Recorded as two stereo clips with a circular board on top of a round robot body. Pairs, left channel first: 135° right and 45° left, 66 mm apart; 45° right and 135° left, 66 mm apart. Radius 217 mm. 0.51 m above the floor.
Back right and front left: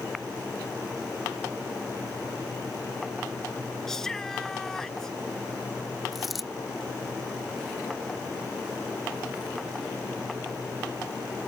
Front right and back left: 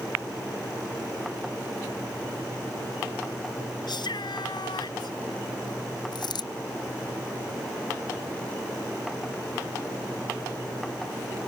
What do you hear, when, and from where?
3.9 s a shout: 50° right
6.1 s a dropped coin: 45° right